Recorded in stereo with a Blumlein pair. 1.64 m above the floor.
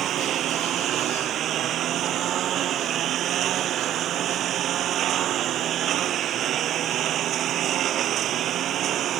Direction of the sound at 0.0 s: 30° right.